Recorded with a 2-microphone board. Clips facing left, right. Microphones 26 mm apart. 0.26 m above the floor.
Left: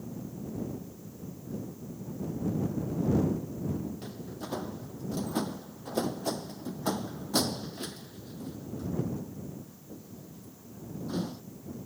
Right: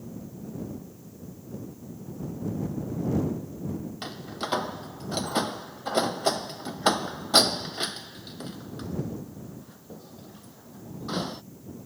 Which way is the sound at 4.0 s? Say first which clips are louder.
Right 6 dB; 70° right (ahead or behind).